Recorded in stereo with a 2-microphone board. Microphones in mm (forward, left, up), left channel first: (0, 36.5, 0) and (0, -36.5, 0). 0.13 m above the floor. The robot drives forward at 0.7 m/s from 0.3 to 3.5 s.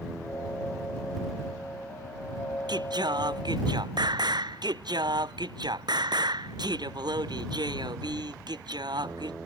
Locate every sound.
2.7 s singing: 80° right